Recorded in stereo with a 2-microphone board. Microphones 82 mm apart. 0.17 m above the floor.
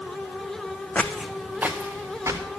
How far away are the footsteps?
About 0.8 m.